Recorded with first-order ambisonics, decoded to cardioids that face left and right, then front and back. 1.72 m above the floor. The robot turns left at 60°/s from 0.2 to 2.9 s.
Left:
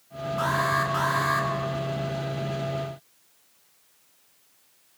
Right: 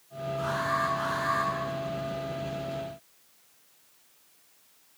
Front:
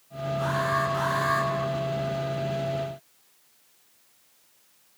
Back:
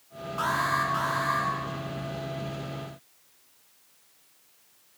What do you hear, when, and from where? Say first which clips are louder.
0.4 s an alarm: left 4 dB, back 1 dB; 135° left, 5 m; by 1.5 s 70° left, 5 m